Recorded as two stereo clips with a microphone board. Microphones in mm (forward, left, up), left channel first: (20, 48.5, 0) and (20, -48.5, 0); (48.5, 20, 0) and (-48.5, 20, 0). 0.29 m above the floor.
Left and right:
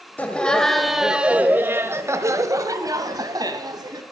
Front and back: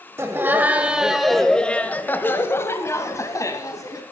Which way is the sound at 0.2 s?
150° left.